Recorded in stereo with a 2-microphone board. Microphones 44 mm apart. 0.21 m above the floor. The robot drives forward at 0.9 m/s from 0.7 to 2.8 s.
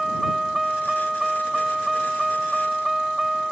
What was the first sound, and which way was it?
A vehicle, centre (ahead or behind).